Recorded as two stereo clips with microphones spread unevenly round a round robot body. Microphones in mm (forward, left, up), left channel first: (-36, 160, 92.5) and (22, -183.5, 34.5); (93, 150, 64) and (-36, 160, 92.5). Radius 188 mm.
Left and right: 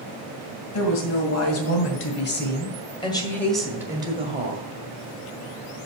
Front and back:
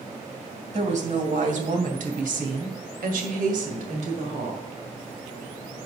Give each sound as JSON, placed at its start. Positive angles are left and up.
{"t": 0.7, "sound": "a woman speaking", "azimuth_deg": 140, "distance_m": 3.0}